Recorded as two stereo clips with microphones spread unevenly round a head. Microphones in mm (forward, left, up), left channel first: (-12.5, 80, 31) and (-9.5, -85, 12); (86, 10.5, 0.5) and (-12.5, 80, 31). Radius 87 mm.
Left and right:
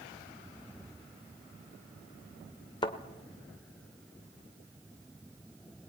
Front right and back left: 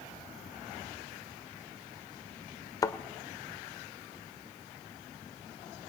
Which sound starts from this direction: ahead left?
A thud, at 2.8 s.